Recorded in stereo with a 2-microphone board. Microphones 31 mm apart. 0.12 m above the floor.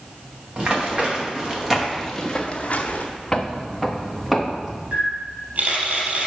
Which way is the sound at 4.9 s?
55° right (ahead or behind).